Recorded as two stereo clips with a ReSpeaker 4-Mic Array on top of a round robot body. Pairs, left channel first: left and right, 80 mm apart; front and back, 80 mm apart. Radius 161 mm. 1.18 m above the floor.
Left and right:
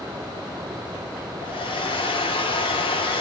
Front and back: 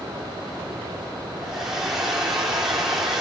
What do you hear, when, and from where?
1.4 s a hair dryer: 95° left, 2.5 m